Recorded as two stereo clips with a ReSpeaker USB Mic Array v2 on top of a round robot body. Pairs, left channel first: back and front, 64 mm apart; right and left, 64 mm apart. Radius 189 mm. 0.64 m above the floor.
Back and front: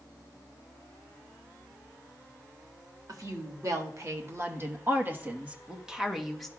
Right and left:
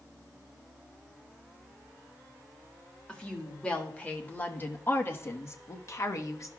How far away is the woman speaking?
About 1.9 m.